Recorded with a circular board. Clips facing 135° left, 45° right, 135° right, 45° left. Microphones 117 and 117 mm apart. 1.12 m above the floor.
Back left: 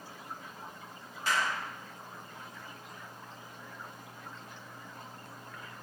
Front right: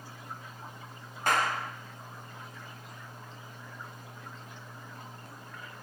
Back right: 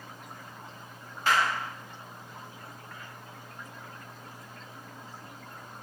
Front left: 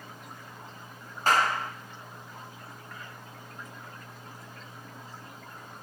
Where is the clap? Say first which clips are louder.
Front right 4 dB, front left 2 dB; 5° right, 0.8 m.